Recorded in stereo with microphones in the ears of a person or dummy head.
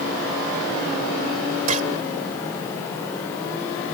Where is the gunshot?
45° right (ahead or behind).